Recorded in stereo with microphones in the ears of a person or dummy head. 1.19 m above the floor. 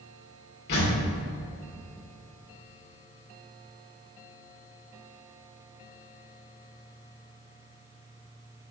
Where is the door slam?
55° left (ahead or behind), 2 m.